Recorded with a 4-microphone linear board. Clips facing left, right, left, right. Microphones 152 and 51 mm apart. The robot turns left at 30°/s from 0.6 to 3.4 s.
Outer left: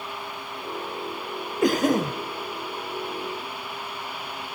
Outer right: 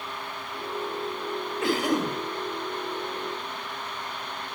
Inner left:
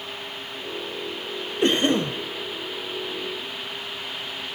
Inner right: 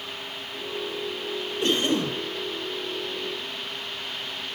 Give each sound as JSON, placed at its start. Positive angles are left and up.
{"t": 1.6, "sound": "a cough", "side_deg": 40, "distance_m": 1.9}